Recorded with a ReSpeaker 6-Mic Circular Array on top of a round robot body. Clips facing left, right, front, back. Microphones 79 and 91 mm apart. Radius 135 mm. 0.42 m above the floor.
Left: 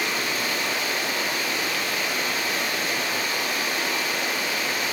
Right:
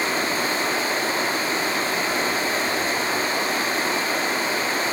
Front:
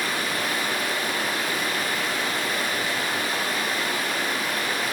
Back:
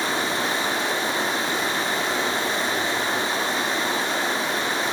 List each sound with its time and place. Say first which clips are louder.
0.0 s running water: right 4 dB, back 3 dB; 130° right, 1.4 m